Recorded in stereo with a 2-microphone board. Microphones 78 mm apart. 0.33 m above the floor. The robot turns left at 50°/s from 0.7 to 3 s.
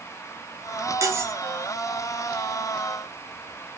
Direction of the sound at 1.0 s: 45° right (ahead or behind).